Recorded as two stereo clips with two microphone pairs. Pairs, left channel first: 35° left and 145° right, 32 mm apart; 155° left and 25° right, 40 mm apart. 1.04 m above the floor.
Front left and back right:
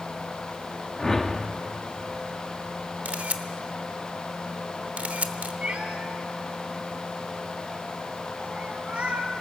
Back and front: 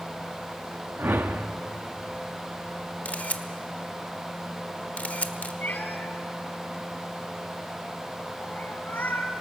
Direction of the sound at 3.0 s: 165° right.